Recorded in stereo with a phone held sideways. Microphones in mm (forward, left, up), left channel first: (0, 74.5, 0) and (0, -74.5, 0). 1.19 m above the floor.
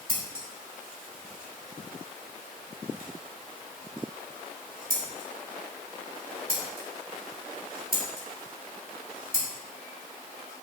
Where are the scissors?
80° right, 3 m.